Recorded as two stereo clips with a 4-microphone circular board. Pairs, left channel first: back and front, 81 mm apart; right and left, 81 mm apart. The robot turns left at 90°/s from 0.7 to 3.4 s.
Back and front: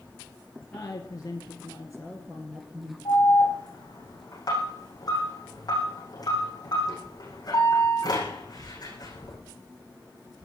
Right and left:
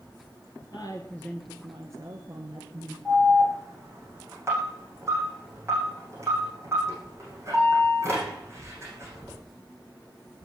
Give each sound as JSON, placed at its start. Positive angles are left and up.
{"t": 0.7, "sound": "a woman speaking", "azimuth_deg": -110, "distance_m": 2.0}
{"t": 3.0, "sound": "an alarm", "azimuth_deg": 175, "distance_m": 9.0}